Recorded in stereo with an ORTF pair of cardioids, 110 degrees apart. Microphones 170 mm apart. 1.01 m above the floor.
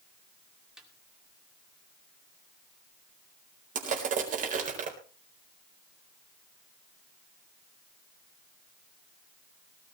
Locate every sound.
0.8 s a snare drum: 5° right, 2.5 m
3.8 s crushing: 50° right, 4 m